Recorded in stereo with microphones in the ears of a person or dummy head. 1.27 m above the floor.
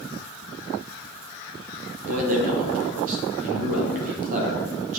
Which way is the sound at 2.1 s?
45° right (ahead or behind).